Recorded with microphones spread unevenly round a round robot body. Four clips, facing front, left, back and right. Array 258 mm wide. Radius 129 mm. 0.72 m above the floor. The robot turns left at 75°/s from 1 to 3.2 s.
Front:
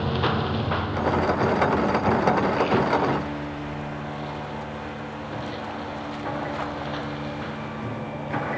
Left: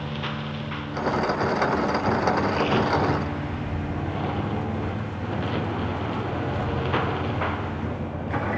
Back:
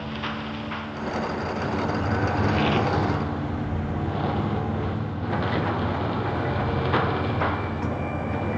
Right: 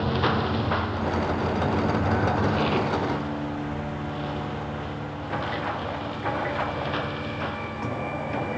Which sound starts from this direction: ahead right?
A lawn mower, at 0.0 s.